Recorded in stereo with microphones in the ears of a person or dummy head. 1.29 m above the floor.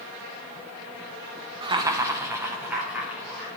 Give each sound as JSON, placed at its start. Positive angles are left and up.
{"t": 1.6, "sound": "laughter", "side_deg": -30, "distance_m": 0.8}